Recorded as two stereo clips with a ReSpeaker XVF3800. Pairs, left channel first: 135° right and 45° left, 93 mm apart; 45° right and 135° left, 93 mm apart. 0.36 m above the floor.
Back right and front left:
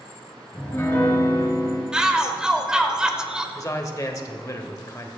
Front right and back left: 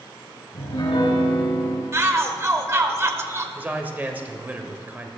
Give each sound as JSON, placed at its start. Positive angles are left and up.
{"t": 0.5, "sound": "a piano", "azimuth_deg": -70, "distance_m": 3.0}
{"t": 1.9, "sound": "a shout", "azimuth_deg": 115, "distance_m": 1.0}
{"t": 3.5, "sound": "a man speaking", "azimuth_deg": -165, "distance_m": 1.2}